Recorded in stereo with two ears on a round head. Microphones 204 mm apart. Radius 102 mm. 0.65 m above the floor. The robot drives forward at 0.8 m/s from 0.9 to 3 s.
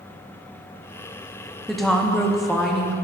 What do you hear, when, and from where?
1.7 s a woman speaking: centre (ahead or behind), 0.5 m